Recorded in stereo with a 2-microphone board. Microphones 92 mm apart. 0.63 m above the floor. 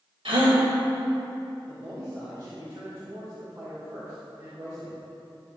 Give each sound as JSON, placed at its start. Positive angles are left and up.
{"t": 0.2, "sound": "a gasp", "side_deg": -70, "distance_m": 1.7}
{"t": 1.7, "sound": "a man speaking", "side_deg": -55, "distance_m": 2.5}